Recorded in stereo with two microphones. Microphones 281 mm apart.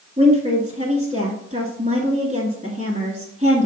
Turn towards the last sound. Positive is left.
turn(degrees=-25)  # may be behind; listen again after turning